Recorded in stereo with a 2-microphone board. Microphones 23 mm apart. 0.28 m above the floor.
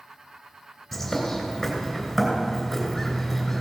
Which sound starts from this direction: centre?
A bird, at 0.9 s.